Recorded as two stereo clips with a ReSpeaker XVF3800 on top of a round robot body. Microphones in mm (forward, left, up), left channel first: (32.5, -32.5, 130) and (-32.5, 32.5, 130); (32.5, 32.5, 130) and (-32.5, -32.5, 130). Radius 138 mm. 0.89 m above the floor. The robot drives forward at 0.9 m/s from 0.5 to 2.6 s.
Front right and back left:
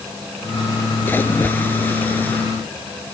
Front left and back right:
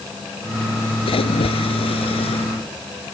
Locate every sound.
1.1 s a splash: 25° left; by 2.5 s 30° left